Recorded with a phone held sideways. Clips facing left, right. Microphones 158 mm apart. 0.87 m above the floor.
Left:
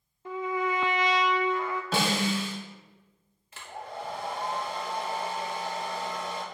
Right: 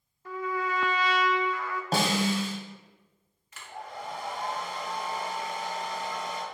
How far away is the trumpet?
About 0.7 m.